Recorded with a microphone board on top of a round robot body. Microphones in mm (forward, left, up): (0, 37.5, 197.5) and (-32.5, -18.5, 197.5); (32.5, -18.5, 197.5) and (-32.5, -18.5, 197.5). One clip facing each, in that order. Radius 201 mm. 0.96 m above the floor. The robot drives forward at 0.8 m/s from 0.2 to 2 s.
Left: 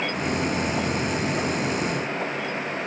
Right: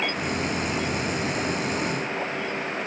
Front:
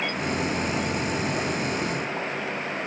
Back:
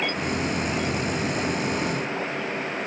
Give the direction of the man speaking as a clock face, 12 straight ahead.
I don't hear a man speaking.